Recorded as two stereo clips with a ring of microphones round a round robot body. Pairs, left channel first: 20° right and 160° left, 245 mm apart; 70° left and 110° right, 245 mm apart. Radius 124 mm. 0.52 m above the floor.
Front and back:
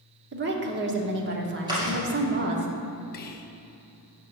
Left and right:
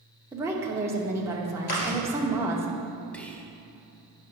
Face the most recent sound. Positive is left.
turn(degrees=-15)